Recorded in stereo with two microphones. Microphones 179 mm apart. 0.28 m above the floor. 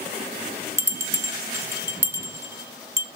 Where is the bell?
15° right (ahead or behind), 0.8 m.